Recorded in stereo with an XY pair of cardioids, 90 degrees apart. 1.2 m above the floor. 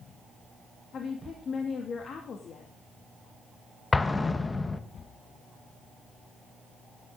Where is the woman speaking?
60° left, 2.5 m.